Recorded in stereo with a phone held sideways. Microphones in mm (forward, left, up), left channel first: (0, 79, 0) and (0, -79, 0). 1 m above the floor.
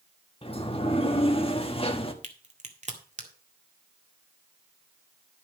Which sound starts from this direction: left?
A sliding door, at 0.4 s.